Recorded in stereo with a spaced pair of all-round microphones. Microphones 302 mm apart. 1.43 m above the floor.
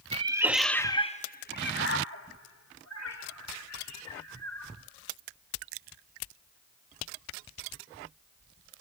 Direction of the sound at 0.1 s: 20° right (ahead or behind).